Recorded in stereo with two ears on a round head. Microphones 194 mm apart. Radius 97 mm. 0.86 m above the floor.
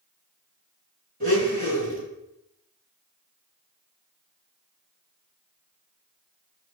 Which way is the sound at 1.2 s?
40° right (ahead or behind).